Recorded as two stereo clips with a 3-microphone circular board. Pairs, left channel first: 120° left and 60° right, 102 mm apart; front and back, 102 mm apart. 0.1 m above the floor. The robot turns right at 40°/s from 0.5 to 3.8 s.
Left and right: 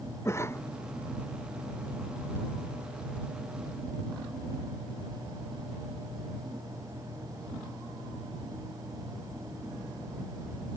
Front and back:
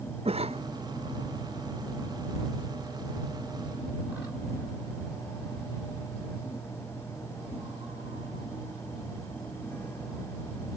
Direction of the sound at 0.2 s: 175° right.